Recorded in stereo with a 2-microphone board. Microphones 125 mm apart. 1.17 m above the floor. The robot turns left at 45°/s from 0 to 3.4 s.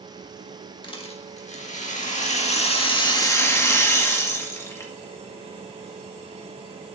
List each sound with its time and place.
0.8 s a rattle: 140° left, 1.7 m; by 4.9 s 25° left, 1.7 m